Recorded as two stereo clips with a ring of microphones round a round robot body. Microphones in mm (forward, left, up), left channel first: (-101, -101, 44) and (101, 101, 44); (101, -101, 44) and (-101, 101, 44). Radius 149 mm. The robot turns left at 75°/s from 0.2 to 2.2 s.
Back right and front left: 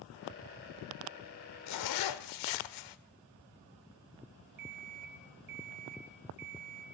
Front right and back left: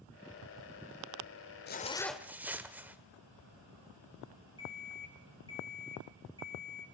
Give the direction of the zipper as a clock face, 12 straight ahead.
3 o'clock.